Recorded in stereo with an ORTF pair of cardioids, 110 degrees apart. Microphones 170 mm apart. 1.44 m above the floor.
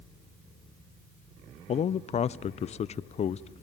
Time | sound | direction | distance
1.7 | a man speaking | 40° left | 0.6 m